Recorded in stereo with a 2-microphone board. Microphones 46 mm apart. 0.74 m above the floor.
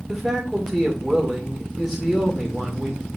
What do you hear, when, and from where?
0.1 s a man speaking: 5° right (ahead or behind), 2.5 m